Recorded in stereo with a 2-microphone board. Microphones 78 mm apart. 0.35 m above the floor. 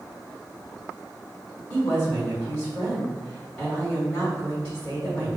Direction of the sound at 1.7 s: 15° left (ahead or behind).